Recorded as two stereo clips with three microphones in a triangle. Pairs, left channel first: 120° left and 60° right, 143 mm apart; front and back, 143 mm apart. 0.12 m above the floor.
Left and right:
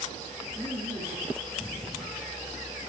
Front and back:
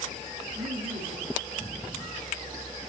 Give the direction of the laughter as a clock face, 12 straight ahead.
4 o'clock.